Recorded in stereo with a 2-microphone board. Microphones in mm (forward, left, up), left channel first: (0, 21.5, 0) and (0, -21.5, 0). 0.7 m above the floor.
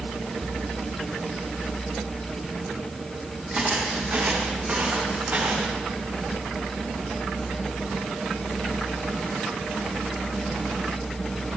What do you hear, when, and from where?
3.5 s footsteps: 35° right (ahead or behind), 2.0 m; by 5.8 s 75° right (ahead or behind), 3 m